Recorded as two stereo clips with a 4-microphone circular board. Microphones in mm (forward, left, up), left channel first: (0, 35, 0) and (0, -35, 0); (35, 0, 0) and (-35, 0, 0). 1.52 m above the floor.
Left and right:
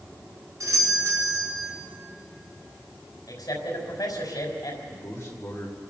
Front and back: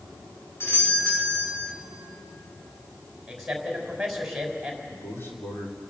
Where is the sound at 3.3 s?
90° left, 5.5 m.